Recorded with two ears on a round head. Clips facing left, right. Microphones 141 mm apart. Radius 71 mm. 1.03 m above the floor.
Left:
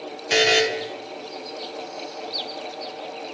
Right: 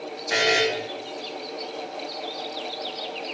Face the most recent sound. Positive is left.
turn(degrees=30)  # may be behind; listen again after turning